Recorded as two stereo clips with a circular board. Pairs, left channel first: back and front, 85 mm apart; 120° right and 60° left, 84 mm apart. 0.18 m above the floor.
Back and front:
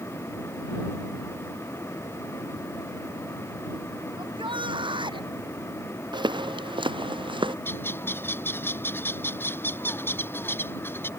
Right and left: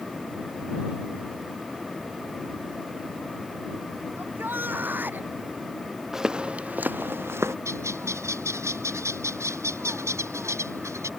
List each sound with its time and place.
4.2 s a shout: 5° right; by 5.3 s 10° right
6.1 s footsteps: 25° right; by 7.5 s 5° left
7.7 s a bird: 115° left